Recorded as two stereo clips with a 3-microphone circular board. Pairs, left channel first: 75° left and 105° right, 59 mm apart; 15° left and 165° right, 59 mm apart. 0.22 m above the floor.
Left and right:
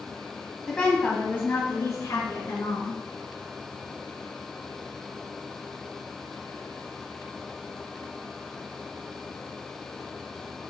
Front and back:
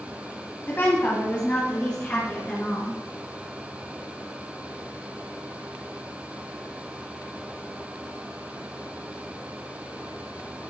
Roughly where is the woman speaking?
Ahead.